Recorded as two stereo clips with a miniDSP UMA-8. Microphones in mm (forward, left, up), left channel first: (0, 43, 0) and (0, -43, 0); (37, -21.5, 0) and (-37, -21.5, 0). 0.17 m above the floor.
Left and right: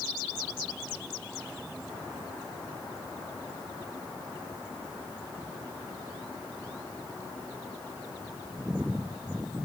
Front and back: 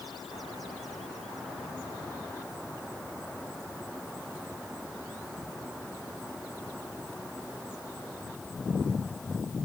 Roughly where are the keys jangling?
I don't hear keys jangling.